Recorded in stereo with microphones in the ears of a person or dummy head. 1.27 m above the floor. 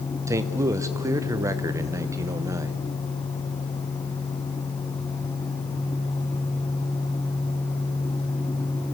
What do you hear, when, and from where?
0.3 s a man speaking: 15° right (ahead or behind), 0.8 m